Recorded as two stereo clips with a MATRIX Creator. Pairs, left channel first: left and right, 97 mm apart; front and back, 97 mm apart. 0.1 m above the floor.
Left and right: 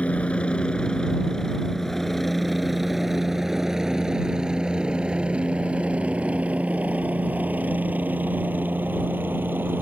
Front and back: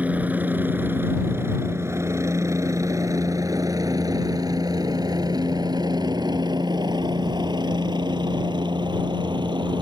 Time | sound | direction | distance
0.0 | a helicopter | 140° left | ?